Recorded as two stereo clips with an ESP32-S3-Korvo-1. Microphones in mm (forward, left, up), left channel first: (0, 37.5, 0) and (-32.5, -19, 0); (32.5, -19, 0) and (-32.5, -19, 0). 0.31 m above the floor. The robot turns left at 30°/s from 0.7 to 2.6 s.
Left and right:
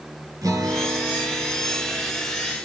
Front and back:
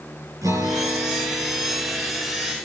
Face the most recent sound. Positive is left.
turn(degrees=155)